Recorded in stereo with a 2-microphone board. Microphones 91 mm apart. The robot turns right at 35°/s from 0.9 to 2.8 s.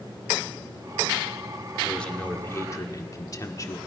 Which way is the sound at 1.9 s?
5° left.